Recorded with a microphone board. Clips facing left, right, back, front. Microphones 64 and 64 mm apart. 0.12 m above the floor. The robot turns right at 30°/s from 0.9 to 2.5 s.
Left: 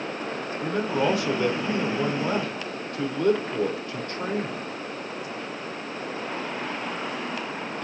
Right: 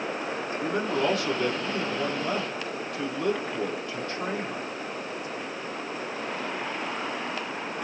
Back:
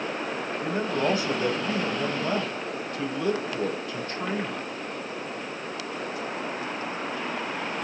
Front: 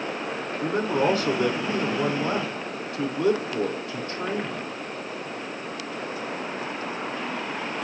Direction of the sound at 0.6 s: 5° right.